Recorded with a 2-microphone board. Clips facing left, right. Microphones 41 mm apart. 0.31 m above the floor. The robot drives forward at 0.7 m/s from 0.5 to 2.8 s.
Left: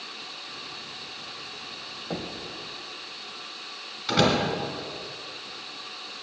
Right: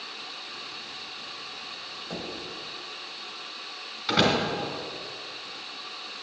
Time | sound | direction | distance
2.1 | knocking | 30° left (ahead or behind) | 1.0 m
4.1 | a door slam | 10° right (ahead or behind) | 2 m